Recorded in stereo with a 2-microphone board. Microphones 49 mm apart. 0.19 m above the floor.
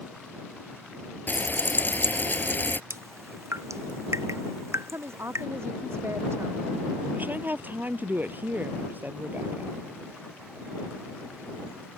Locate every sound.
1.3 s frying: 40° left (ahead or behind)
2.9 s dripping: 75° right (ahead or behind)
4.9 s a woman speaking: 60° right (ahead or behind)
7.2 s a woman speaking: 40° right (ahead or behind)